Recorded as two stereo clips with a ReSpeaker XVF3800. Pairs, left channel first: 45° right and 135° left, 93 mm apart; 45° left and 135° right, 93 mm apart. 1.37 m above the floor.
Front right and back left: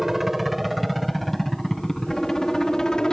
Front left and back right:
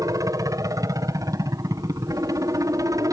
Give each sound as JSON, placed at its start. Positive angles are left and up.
{"t": 0.0, "sound": "a helicopter", "azimuth_deg": -140}